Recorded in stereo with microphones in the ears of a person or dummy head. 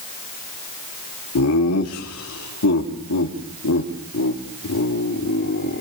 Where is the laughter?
85° left, 4 m; by 5.8 s 50° left (ahead or behind), 4.5 m.